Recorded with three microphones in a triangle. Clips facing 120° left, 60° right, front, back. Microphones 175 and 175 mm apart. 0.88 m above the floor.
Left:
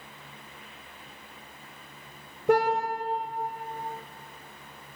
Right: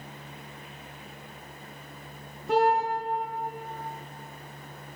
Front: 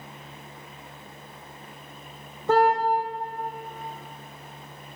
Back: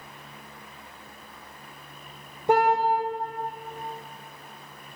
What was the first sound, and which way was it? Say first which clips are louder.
A car horn: even, front 1 dB; 105° left.